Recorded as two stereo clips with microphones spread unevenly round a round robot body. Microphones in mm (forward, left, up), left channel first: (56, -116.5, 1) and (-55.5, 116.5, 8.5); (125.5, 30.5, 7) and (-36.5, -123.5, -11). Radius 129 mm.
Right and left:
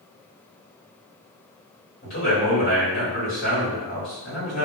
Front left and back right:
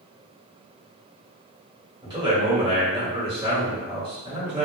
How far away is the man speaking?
About 1.9 m.